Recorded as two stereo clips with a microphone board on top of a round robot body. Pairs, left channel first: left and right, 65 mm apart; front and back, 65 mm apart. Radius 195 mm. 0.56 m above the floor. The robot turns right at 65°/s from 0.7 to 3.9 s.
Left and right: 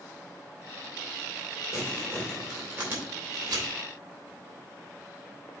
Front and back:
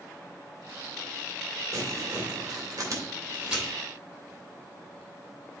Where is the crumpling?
140° left, 3 m; by 3.7 s 90° right, 3 m.